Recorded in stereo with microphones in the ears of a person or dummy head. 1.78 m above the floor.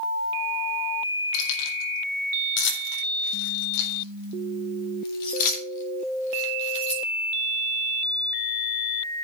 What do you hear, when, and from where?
1.3 s keys jangling: 75° left (ahead or behind), 4.5 m; by 7.0 s 30° left (ahead or behind), 3.5 m